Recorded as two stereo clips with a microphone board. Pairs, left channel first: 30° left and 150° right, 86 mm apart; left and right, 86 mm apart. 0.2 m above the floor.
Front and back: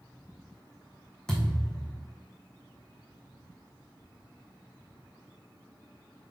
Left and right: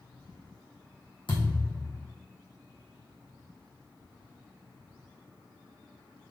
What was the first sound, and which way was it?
A thud, 110° left.